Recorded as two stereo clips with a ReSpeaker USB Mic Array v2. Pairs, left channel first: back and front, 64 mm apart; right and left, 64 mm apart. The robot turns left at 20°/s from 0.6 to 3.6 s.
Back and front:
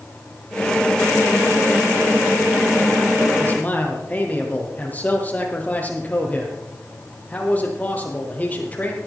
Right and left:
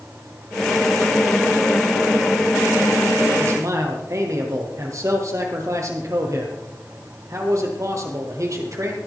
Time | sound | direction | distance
3.4 | a man speaking | 125° left | 3.5 m